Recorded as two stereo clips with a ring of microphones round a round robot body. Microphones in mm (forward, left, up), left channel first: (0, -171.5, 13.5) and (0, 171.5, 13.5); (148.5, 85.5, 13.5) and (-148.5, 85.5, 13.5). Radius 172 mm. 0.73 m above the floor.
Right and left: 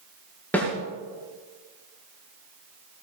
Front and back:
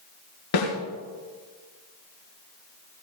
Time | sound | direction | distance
0.5 | a snare drum | 5° right | 6 m